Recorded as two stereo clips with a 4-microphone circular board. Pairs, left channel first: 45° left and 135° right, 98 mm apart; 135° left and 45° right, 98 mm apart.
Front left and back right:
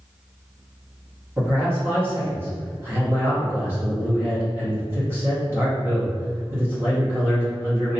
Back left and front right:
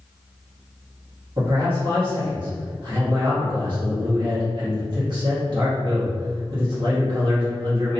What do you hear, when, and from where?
1.4 s a man speaking: 70° right, 1.4 m